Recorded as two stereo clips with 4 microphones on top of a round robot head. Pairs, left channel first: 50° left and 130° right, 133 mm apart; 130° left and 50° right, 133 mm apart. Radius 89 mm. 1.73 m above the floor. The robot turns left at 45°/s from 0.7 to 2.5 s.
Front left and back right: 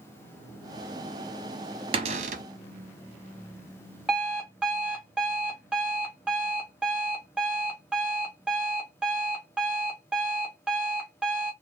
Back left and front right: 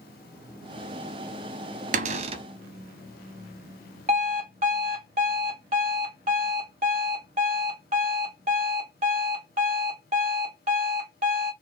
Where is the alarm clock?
50° right, 1.0 m.